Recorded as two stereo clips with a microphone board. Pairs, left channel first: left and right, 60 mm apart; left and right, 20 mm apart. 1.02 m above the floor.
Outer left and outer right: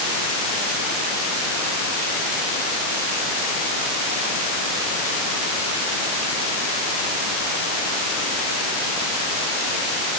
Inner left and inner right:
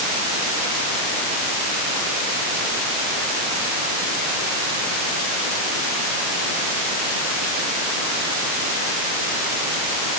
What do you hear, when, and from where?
Only background noise.